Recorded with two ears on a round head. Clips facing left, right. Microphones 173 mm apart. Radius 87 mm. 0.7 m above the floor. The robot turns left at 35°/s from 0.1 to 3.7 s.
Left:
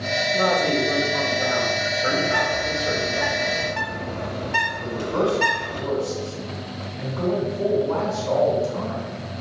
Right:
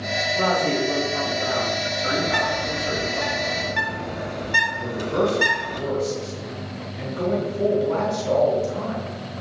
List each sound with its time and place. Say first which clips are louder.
0.3 s a woman speaking: left 1 dB; 140° left, 2.5 m; by 3.2 s 40° left, 2.5 m
2.2 s a bird: left 1 dB; 70° right (ahead or behind), 1.8 m; by 5.8 s 20° right (ahead or behind), 1.8 m
4.8 s a man speaking: right 1 dB; 20° right (ahead or behind), 2.5 m